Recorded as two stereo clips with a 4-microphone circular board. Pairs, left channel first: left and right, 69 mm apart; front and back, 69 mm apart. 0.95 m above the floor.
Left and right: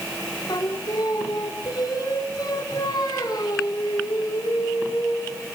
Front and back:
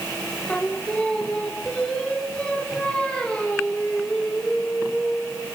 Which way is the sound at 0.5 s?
75° left.